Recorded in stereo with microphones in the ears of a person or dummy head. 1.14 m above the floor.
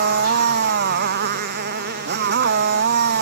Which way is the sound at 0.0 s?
60° right (ahead or behind).